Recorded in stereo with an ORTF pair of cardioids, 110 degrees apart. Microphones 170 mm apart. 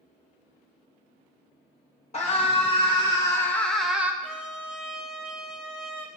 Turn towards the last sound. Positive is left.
turn(degrees=5)